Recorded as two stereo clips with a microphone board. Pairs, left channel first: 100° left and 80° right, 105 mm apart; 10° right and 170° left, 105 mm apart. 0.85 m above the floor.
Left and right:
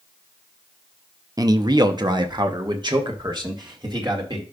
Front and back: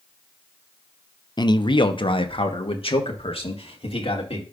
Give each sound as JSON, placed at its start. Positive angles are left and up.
{"t": 1.4, "sound": "a man speaking", "azimuth_deg": -45, "distance_m": 0.7}